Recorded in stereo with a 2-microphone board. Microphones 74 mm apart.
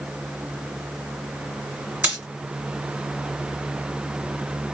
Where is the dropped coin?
25° right (ahead or behind), 1.9 m.